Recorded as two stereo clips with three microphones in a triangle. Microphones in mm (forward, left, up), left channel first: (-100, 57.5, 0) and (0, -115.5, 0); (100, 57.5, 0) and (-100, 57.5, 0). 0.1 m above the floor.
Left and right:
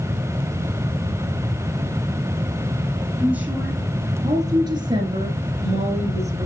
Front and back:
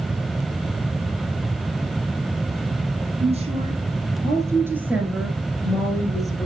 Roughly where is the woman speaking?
Behind right.